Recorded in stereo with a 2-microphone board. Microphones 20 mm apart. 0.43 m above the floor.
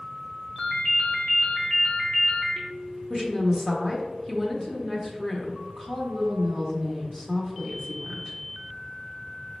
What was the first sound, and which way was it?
A ringtone, 40° left (ahead or behind).